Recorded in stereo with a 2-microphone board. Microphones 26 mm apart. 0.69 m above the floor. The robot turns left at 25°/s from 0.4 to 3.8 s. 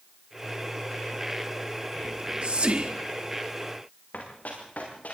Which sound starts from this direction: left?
Running footsteps, at 4.1 s.